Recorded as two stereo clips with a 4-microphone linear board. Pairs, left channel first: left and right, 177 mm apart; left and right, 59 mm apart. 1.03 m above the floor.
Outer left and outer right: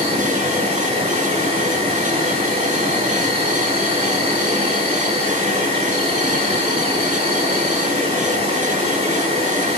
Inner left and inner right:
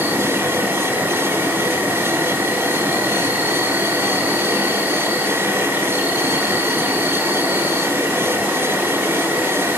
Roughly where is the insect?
Right.